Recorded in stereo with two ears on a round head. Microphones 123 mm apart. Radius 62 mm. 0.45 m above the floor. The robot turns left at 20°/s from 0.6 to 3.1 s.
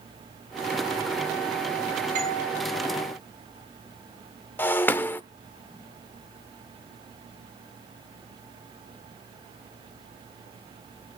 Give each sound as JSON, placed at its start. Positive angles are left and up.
{"t": 2.1, "sound": "a doorbell", "side_deg": -60, "distance_m": 7.5}
{"t": 4.6, "sound": "breaking glass", "side_deg": 15, "distance_m": 0.7}